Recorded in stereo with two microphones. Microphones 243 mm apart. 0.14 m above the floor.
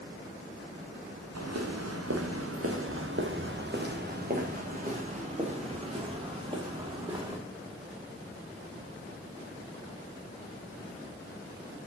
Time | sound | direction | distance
1.4 | footsteps | 90° right | 1.8 m